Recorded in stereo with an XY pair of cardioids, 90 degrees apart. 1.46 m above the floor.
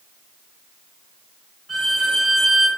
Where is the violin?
25° right, 1.1 m.